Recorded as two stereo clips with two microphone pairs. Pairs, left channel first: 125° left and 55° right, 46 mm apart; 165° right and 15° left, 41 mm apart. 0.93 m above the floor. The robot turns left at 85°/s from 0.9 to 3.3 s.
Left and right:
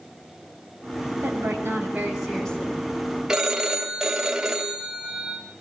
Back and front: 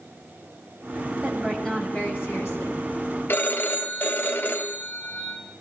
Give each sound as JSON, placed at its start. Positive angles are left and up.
{"t": 1.2, "sound": "a woman speaking", "azimuth_deg": -50, "distance_m": 6.5}
{"t": 3.3, "sound": "a phone ringing", "azimuth_deg": -135, "distance_m": 2.0}